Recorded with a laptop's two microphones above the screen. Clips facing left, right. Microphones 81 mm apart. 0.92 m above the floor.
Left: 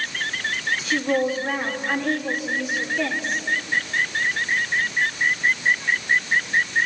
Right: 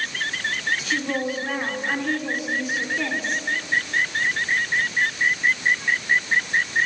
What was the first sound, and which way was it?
A woman speaking, 5° left (ahead or behind).